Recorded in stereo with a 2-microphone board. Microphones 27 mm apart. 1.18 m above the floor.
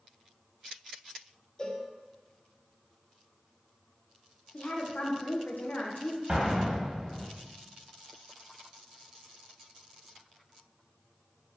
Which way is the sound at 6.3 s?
35° right (ahead or behind).